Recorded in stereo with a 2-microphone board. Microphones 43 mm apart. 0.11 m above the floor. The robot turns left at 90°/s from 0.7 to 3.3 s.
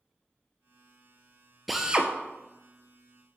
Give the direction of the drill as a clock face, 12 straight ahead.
12 o'clock.